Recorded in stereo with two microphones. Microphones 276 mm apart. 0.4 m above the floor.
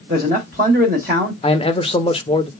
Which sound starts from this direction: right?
A man speaking, at 0.1 s.